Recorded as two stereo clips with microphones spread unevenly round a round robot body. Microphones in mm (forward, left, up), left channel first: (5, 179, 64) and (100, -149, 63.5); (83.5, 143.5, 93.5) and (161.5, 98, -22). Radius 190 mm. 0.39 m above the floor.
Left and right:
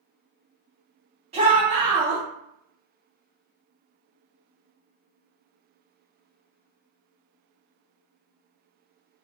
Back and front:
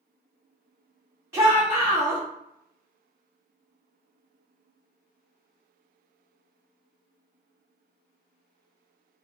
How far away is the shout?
About 3.5 m.